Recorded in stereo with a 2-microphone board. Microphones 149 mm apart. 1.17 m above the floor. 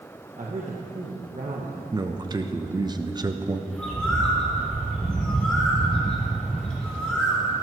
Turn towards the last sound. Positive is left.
turn(degrees=5)  # may be behind; listen again after turning